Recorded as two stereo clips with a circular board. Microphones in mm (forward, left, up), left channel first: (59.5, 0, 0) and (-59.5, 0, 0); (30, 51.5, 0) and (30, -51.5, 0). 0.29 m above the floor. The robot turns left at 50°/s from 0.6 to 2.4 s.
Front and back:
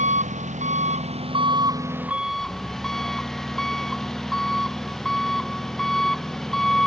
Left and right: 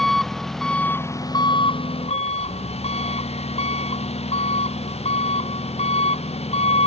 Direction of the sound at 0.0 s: 175° left.